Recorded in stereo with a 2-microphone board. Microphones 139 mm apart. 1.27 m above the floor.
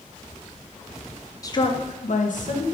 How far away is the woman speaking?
About 0.5 m.